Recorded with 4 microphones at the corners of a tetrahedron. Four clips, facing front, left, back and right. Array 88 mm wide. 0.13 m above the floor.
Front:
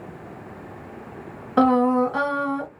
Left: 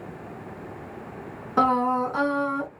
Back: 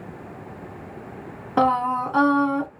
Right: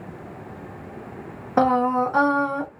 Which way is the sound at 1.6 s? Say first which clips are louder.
Right 2 dB, front 3 dB; 100° right.